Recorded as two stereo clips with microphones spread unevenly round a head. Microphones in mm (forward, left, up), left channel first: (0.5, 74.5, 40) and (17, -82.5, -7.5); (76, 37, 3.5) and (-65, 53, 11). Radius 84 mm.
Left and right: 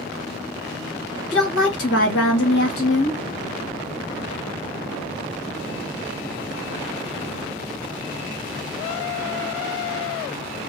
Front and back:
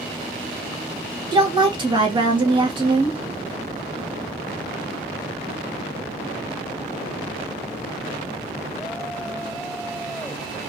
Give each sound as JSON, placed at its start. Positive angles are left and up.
{"t": 1.3, "sound": "a woman speaking", "azimuth_deg": 115, "distance_m": 1.6}